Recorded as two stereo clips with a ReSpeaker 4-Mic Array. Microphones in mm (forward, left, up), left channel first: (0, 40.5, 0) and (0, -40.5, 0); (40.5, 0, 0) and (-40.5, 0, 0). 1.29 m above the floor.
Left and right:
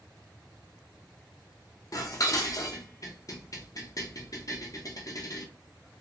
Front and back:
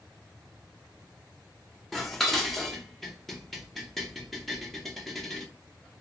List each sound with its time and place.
1.9 s dishes clattering: 90° left, 0.6 m